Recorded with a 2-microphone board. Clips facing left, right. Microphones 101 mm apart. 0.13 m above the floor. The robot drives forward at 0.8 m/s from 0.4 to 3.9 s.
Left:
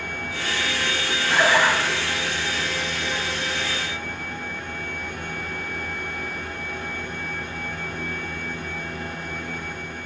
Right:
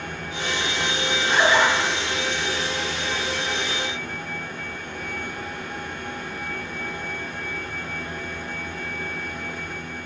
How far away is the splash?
About 3.5 m.